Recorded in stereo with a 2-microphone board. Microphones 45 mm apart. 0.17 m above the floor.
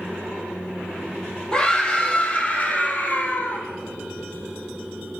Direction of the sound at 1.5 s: 15° left (ahead or behind).